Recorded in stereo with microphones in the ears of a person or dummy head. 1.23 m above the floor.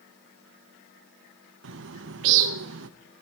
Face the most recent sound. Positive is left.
turn(degrees=-65)  # may be behind; listen again after turning